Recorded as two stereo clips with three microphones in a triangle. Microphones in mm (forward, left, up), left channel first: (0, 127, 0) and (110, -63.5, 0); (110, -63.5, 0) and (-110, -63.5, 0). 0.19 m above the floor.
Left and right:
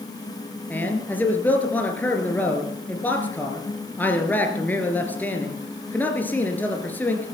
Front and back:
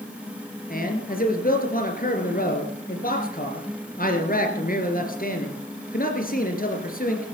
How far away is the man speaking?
About 2.5 m.